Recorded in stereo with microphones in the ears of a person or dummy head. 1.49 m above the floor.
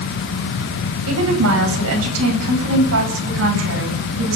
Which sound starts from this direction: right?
A woman speaking, at 1.1 s.